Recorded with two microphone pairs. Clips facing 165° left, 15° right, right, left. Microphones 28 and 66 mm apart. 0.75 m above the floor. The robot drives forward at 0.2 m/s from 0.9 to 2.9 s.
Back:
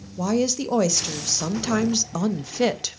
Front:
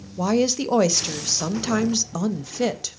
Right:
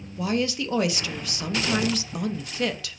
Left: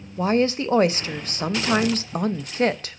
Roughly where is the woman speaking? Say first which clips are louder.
Front 2 dB, left 5 dB; ahead left.